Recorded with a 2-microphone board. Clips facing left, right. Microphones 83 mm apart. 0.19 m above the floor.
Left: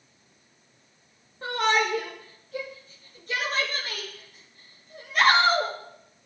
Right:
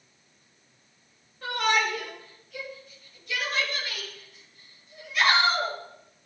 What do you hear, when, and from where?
1.4 s a shout: 30° left (ahead or behind), 5 m; by 5.7 s 55° left (ahead or behind), 4.5 m